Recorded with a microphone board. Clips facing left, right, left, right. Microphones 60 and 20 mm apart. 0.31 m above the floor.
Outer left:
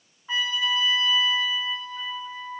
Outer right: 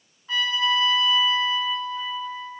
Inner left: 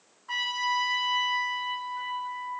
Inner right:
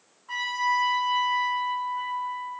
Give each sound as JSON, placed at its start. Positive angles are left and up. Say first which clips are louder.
{"t": 0.3, "sound": "a trumpet", "louder": "outer right 3 dB, inner right 2 dB", "side_deg": 20, "distance_m": 0.6}